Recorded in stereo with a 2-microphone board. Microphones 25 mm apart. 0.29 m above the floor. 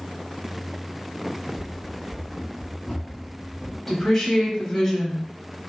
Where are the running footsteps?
55° left (ahead or behind), 1.0 m; by 3.8 s 5° right (ahead or behind), 1.3 m.